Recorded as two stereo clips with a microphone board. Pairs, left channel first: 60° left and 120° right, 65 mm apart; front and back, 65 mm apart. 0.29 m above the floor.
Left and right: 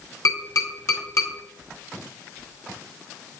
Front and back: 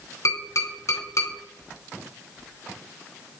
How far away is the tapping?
About 2.5 m.